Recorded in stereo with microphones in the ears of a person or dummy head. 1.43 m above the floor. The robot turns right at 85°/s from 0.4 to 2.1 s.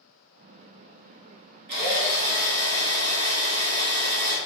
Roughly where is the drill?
Right.